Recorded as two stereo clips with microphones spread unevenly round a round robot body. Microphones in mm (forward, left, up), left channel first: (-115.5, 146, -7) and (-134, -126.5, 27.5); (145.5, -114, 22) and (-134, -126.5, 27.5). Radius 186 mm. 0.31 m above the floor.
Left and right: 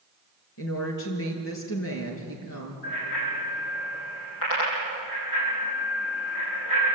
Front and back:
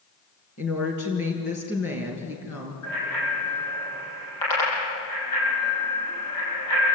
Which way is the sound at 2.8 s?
30° left.